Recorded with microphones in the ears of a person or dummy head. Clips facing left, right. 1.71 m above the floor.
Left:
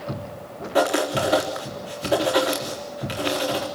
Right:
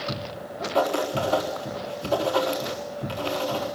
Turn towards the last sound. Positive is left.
turn(degrees=25)  # may be behind; listen again after turning